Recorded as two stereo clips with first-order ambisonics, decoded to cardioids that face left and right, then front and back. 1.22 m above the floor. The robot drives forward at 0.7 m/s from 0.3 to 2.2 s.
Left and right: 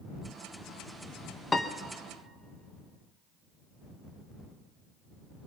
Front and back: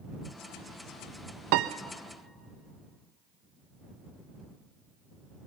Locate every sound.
1.5 s a piano: 170° left, 0.7 m